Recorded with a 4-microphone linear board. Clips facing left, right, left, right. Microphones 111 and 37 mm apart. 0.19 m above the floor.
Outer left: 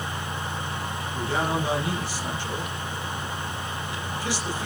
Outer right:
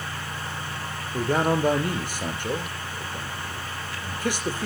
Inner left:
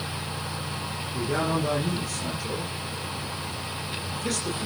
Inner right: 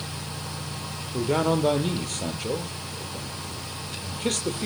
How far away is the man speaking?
About 4.5 m.